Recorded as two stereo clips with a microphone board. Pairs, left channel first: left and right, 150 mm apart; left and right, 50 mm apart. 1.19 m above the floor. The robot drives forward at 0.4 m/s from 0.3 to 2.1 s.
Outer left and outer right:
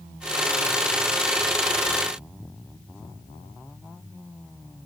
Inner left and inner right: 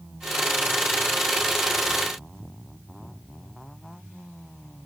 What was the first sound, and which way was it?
Only background noise.